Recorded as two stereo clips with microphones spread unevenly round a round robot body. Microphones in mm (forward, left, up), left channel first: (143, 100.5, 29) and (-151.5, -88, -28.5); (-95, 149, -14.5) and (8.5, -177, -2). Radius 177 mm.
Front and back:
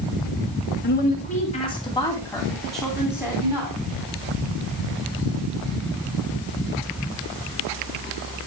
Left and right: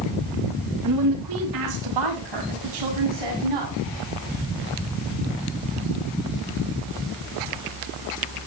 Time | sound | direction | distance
0.8 | a woman speaking | 35° right | 2.0 m